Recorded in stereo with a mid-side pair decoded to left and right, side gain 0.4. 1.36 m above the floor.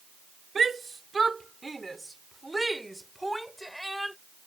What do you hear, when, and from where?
0.6 s a shout: 35° right; by 4.2 s 5° left